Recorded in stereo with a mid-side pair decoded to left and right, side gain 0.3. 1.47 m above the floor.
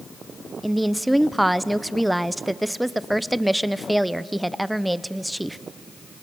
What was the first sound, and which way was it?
A woman speaking, 10° right.